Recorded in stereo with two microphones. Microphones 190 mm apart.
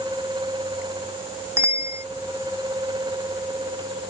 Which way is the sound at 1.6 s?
15° right (ahead or behind).